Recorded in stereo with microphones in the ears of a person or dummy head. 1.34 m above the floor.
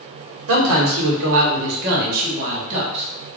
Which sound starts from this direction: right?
A man speaking, at 0.5 s.